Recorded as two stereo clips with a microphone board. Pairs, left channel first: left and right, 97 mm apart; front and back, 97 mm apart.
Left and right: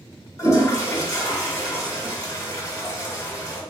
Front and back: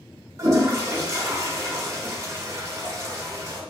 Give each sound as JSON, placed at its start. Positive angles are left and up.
{"t": 0.4, "sound": "a toilet flushing", "azimuth_deg": 135, "distance_m": 0.9}